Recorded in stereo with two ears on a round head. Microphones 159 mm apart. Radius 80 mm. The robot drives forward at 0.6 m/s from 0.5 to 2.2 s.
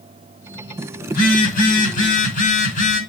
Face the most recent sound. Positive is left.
turn(degrees=50)  # may be behind; listen again after turning